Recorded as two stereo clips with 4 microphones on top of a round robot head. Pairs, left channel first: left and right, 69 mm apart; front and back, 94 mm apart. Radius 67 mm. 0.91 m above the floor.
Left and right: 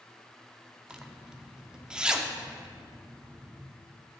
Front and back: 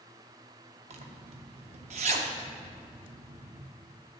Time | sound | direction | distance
0.9 | a zipper | 165° right | 0.6 m